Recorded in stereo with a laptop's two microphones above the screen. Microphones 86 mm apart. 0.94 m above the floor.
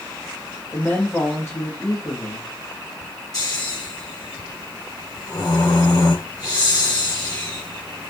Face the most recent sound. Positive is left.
turn(degrees=50)  # may be behind; listen again after turning